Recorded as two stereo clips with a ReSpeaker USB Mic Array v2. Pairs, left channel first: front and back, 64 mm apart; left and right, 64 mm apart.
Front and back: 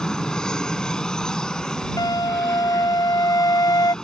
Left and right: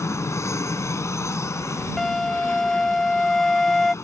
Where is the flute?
5° left.